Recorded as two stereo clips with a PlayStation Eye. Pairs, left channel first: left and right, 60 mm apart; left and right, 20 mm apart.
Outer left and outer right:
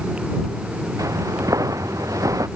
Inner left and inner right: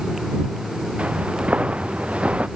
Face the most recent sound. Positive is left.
turn(degrees=-75)  # may be behind; listen again after turning